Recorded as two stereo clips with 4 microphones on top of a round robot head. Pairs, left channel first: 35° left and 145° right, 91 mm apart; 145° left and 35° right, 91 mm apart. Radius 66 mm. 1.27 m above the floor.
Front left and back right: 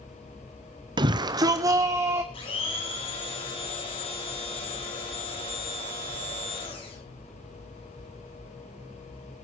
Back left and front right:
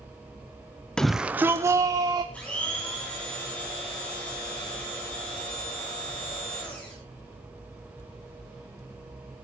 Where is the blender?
65° left, 8.5 m.